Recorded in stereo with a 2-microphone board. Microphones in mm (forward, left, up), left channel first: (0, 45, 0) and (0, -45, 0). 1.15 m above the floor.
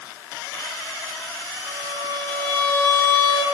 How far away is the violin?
About 4 m.